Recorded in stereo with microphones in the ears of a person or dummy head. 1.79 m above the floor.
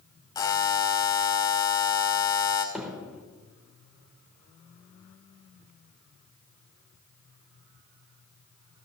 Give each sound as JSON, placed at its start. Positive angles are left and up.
{"t": 0.3, "sound": "a buzzer", "side_deg": 25, "distance_m": 2.0}
{"t": 2.8, "sound": "hammering", "side_deg": 0, "distance_m": 4.5}